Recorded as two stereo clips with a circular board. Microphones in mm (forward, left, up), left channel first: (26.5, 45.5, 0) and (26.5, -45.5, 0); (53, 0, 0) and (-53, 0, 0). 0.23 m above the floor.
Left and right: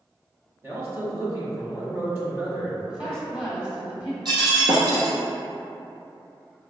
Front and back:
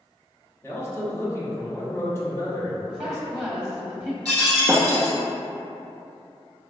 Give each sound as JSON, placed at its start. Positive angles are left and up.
{"t": 0.6, "sound": "a man speaking", "azimuth_deg": -45, "distance_m": 1.3}
{"t": 2.9, "sound": "a woman speaking", "azimuth_deg": -125, "distance_m": 1.4}
{"t": 4.2, "sound": "breaking glass", "azimuth_deg": -120, "distance_m": 1.7}